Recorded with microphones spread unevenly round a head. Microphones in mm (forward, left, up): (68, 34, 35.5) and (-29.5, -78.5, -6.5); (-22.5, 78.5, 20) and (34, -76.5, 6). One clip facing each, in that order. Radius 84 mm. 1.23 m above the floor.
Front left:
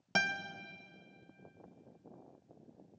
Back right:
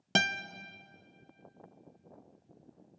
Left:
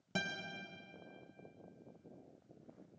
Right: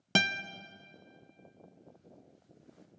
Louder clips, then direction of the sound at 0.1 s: Back right 4 dB, right 9 dB; 70° right.